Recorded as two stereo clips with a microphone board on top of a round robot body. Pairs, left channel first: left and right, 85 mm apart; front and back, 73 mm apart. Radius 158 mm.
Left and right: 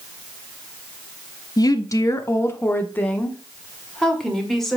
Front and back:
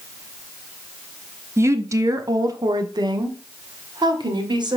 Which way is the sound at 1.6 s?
130° left.